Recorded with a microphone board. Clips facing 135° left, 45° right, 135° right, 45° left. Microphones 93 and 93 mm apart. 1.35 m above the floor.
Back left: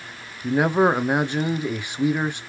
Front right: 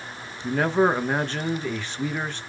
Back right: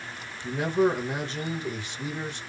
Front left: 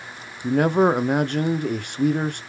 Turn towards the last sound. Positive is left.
turn(degrees=60)